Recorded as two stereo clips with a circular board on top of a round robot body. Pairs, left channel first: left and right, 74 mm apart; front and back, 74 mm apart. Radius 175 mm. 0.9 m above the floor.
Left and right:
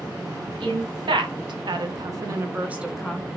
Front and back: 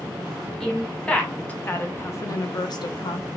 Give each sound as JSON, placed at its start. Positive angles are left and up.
{"t": 0.6, "sound": "a woman speaking", "azimuth_deg": -85, "distance_m": 1.4}